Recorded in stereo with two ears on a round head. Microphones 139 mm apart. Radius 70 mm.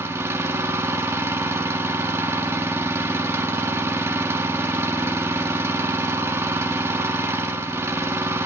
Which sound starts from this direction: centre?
An engine running, at 0.0 s.